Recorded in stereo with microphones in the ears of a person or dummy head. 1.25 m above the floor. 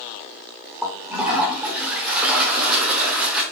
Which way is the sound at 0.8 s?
10° right (ahead or behind).